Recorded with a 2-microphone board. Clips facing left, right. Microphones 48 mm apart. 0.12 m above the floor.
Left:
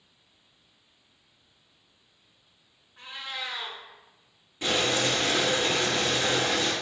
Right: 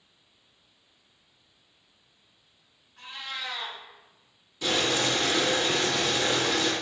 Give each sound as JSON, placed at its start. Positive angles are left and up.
{"t": 3.0, "sound": "a cat meowing", "side_deg": 20, "distance_m": 0.9}
{"t": 4.6, "sound": "boiling", "side_deg": 35, "distance_m": 1.7}